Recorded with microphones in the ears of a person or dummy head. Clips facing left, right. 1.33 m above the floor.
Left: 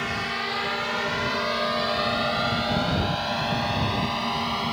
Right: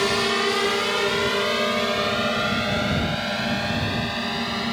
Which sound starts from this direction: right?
A drone, at 0.0 s.